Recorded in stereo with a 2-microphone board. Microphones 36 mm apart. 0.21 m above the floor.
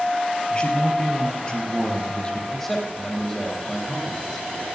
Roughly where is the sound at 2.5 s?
Centre.